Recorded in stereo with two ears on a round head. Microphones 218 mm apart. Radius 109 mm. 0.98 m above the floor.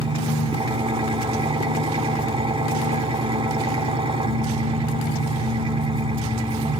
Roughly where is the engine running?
Right.